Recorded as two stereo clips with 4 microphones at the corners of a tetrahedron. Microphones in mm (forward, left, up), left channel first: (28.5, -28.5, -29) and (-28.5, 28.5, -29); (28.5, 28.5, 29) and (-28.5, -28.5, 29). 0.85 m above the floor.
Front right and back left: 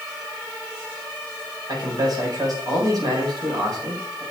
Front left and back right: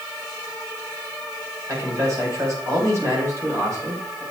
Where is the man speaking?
175° left, 4.5 m.